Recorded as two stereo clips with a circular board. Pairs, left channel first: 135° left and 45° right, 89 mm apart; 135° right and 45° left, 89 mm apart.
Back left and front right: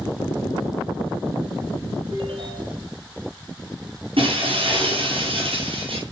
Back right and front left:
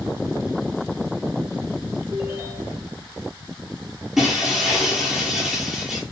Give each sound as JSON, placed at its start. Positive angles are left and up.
{"t": 2.1, "sound": "a ringtone", "azimuth_deg": -20, "distance_m": 6.5}
{"t": 4.2, "sound": "breaking glass", "azimuth_deg": -40, "distance_m": 7.0}